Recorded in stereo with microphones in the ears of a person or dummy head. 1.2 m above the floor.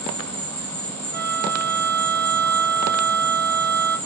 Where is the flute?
15° right (ahead or behind), 1.2 m.